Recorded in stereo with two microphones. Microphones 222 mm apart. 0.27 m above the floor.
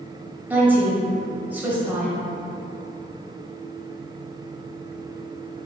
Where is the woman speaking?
10° right (ahead or behind), 0.9 m.